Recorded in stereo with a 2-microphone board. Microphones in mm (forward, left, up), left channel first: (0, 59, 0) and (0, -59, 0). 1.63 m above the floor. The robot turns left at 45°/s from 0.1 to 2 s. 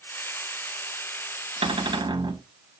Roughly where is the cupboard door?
Right.